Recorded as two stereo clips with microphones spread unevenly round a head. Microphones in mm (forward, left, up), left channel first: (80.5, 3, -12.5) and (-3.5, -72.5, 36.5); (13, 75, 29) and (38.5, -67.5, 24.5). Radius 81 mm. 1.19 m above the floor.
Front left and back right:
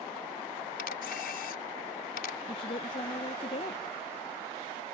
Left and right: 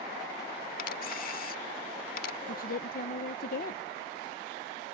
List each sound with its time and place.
0.8 s a camera shutter: 80° left
2.5 s a woman speaking: 80° left